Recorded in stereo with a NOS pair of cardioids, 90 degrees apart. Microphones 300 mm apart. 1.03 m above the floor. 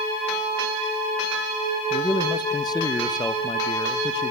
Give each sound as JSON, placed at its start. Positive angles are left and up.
{"t": 1.9, "sound": "a man speaking", "azimuth_deg": 15, "distance_m": 0.6}